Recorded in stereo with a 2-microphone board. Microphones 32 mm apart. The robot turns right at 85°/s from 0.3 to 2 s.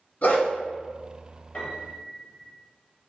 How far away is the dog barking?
About 0.8 m.